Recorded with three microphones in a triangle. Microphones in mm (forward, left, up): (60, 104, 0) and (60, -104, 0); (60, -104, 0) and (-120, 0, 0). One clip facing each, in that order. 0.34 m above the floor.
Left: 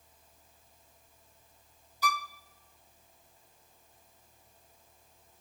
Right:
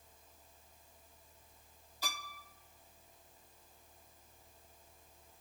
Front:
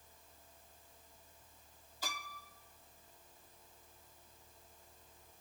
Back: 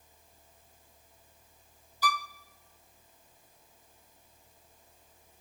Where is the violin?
65° right, 0.8 m.